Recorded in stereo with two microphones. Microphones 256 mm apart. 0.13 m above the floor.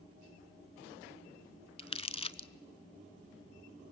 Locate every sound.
1.8 s crumpling: 20° left (ahead or behind), 0.5 m